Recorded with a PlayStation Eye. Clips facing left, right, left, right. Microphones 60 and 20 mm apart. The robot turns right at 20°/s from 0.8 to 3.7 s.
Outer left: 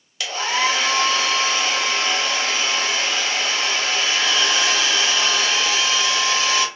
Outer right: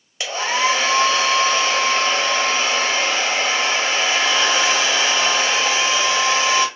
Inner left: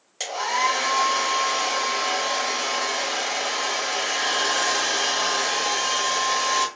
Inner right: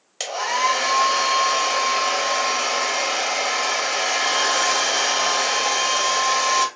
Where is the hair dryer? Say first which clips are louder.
Outer right 1 dB, inner right 2 dB; 130° right, 0.9 m; by 6.7 s 70° right, 0.9 m.